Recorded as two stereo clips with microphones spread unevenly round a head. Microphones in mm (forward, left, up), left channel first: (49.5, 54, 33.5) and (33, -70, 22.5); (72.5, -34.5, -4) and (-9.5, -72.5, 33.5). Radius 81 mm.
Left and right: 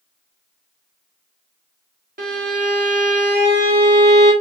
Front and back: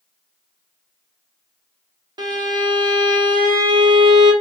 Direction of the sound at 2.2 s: 140° right.